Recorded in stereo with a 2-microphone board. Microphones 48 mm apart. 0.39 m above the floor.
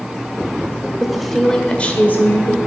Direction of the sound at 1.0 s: 5° right (ahead or behind).